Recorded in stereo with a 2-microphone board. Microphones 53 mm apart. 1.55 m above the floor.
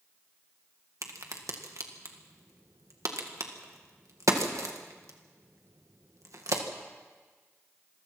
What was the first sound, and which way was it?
A crack, 75° right (ahead or behind).